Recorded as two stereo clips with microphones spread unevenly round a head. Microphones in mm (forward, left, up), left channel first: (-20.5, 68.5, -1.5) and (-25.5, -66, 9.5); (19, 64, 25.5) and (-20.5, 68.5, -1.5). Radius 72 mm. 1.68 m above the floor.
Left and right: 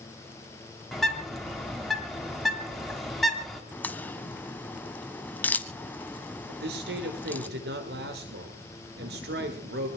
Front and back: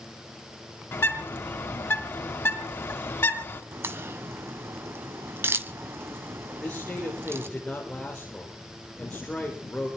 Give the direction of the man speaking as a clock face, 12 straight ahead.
3 o'clock.